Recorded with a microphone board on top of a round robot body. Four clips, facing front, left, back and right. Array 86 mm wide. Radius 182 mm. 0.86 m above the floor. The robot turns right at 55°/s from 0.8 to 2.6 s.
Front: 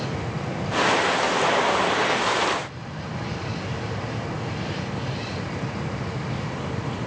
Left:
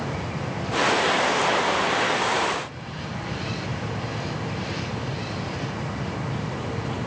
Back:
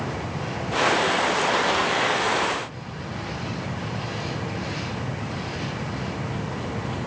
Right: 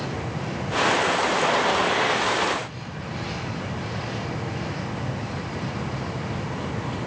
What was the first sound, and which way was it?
Only background noise.